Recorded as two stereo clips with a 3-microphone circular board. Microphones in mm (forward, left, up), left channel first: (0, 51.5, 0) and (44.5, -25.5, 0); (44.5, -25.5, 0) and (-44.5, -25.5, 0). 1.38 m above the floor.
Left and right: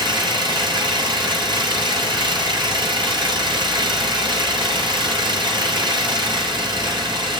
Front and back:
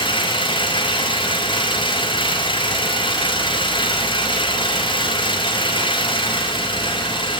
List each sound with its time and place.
0.0 s an engine running: 25° right, 4.5 m